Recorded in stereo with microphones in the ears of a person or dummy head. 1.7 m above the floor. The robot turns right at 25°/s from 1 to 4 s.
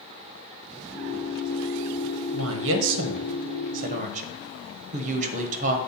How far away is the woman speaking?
About 1.1 m.